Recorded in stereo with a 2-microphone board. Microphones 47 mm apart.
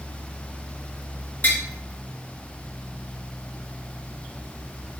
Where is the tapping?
40° left (ahead or behind), 0.7 m.